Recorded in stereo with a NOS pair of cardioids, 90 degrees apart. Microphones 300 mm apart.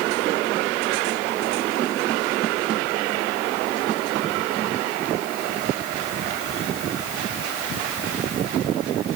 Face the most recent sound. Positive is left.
No sound to turn to.